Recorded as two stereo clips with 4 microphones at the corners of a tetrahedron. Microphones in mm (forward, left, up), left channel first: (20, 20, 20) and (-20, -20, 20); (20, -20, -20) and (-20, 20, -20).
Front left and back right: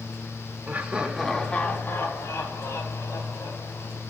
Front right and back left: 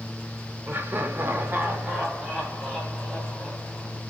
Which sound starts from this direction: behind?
Laughter, at 0.7 s.